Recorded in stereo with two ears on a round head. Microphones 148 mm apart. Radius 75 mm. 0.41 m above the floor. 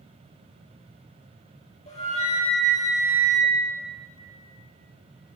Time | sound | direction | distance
1.9 | a flute | 45° left (ahead or behind) | 6 m